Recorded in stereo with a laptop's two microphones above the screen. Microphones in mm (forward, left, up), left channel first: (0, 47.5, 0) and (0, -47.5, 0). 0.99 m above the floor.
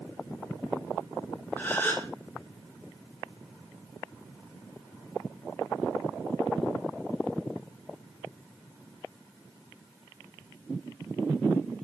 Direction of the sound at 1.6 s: 20° left (ahead or behind).